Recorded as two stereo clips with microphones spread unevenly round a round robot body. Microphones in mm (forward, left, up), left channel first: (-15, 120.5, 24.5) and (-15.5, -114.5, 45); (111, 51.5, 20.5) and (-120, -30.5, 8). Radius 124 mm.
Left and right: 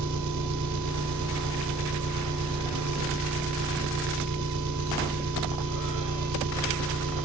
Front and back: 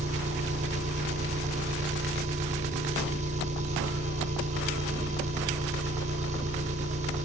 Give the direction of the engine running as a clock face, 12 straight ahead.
3 o'clock.